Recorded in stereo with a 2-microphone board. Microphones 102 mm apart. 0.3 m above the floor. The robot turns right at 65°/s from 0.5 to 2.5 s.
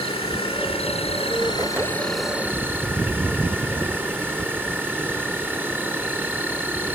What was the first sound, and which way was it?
An insect, 70° left.